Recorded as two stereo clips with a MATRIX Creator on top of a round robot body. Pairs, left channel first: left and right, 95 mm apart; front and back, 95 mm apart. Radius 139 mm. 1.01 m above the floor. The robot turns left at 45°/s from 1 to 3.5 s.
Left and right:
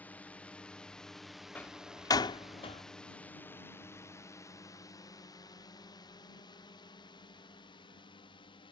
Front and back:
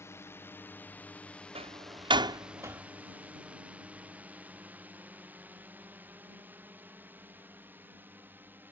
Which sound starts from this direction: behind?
A door slam, at 1.6 s.